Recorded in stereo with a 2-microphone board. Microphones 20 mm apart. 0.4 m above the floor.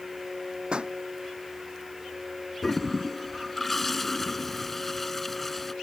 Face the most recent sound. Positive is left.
turn(degrees=10)  # may be behind; listen again after turning